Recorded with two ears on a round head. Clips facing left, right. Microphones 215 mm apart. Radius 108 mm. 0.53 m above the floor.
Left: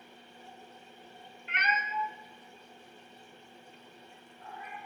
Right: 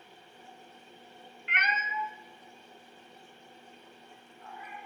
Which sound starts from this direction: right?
A cat meowing, at 1.5 s.